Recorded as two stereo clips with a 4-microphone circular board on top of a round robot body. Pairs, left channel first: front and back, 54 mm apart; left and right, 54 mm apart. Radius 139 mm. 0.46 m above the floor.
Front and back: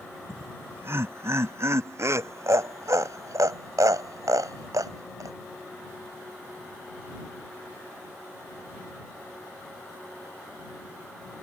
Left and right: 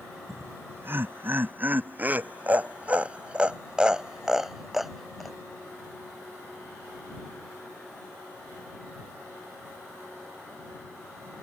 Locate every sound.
0.3 s laughter: 135° right; by 5.4 s straight behind